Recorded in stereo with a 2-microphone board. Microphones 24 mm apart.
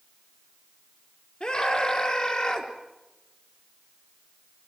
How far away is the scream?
About 4.5 m.